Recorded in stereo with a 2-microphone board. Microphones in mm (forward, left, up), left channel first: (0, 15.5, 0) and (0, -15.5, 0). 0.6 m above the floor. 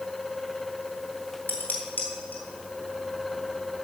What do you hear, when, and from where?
1.5 s dishes clattering: 80° left, 2.5 m